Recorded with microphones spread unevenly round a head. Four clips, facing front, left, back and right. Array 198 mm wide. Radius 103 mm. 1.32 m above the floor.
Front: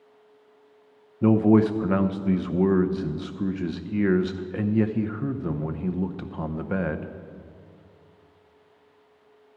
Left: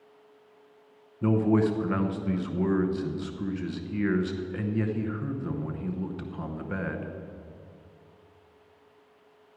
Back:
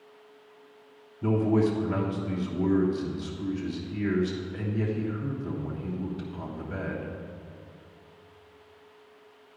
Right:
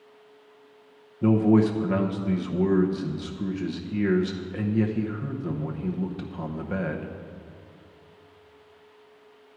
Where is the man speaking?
15° right, 0.9 m.